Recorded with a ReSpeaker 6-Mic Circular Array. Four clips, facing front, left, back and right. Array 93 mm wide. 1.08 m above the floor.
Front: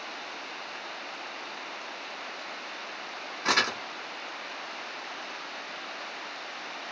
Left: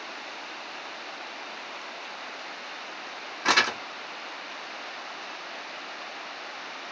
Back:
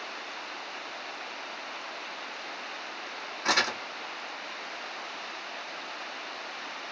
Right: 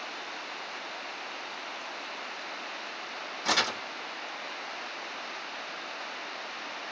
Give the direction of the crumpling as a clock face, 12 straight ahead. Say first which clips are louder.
Left 5 dB, front 1 dB; 9 o'clock.